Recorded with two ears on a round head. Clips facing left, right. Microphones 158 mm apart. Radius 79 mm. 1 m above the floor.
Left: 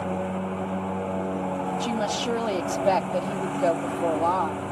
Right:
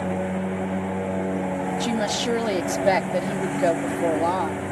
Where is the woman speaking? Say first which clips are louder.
Right 2 dB; 15° right (ahead or behind).